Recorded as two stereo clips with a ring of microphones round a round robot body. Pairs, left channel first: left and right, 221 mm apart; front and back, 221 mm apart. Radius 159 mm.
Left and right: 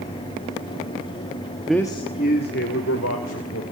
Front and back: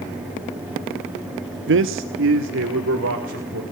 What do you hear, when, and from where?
1.7 s a man speaking: 175° right, 0.9 m; by 3.6 s 130° left, 3.5 m